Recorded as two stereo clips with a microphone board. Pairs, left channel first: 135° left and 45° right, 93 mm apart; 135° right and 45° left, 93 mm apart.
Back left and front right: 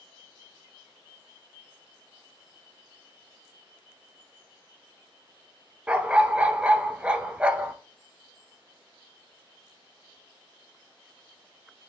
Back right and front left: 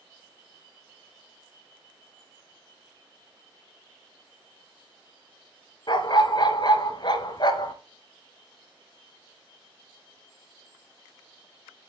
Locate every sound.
5.9 s a dog barking: 120° right, 0.7 m